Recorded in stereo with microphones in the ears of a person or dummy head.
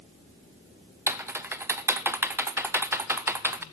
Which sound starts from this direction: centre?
Typing on a keyboard, at 1.1 s.